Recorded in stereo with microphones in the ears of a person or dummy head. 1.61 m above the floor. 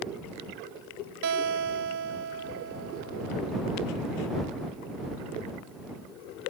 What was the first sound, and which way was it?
A guitar, 75° right (ahead or behind).